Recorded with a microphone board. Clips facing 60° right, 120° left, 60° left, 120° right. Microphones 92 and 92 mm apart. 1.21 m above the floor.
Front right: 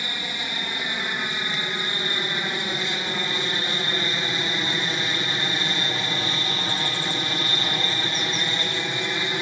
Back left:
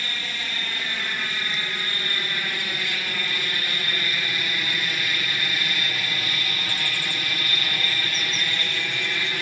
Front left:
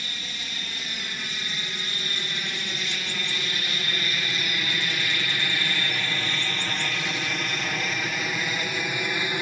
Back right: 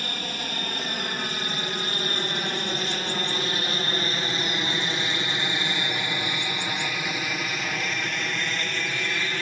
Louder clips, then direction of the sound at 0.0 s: Front right 1 dB, back right 6 dB; 130° right.